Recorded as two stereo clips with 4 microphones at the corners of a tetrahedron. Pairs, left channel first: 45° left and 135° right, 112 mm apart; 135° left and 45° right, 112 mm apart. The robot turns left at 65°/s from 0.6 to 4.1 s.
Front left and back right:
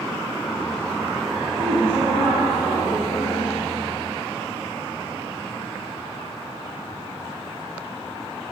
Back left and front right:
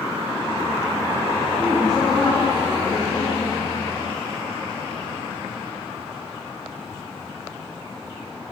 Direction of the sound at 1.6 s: 135° right.